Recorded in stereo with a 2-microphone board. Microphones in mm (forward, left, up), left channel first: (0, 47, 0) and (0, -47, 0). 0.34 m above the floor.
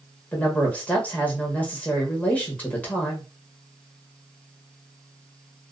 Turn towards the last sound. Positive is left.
turn(degrees=15)  # may be behind; listen again after turning